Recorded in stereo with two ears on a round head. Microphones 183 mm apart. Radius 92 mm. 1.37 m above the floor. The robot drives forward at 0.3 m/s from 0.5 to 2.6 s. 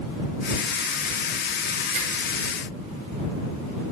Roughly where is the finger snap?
Right.